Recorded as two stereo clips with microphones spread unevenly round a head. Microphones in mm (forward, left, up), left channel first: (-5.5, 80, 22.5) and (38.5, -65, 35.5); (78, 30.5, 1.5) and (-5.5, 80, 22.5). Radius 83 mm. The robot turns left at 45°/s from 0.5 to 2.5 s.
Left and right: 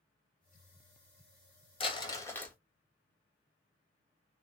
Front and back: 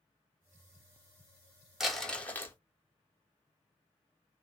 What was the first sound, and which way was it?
Crumpling, 60° left.